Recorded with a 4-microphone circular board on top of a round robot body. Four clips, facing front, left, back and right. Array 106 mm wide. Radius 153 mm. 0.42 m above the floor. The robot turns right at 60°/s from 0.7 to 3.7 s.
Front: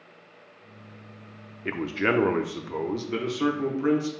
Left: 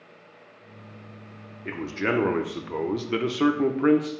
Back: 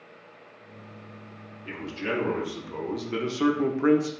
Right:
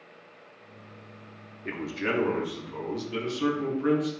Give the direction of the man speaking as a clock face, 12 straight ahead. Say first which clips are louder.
Left 3 dB, front 6 dB; 12 o'clock.